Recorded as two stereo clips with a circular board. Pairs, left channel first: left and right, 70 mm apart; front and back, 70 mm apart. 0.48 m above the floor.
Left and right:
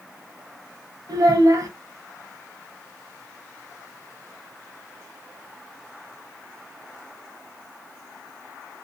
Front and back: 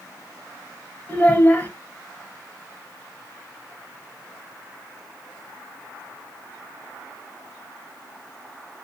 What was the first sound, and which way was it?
A child speaking, 65° right.